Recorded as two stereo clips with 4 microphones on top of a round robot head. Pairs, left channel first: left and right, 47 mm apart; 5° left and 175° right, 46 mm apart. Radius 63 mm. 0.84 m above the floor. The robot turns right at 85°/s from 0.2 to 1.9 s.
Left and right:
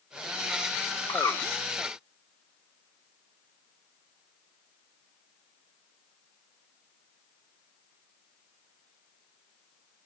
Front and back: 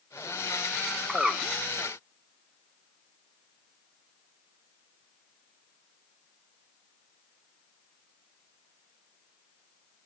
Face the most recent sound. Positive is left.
turn(degrees=165)